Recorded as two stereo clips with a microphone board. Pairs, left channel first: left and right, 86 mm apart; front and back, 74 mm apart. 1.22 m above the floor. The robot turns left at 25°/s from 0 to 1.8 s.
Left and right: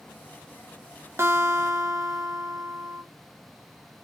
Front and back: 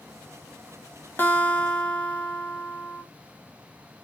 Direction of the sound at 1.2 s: 50° right.